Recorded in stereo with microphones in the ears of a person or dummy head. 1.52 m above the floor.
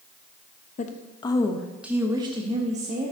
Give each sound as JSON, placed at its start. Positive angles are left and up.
{"t": 0.8, "sound": "a woman speaking", "side_deg": 45, "distance_m": 0.9}